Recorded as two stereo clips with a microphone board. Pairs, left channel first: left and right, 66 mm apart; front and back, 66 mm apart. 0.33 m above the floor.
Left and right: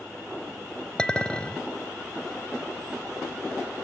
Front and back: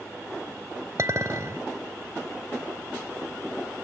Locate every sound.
1.0 s a clink: 160° left, 0.8 m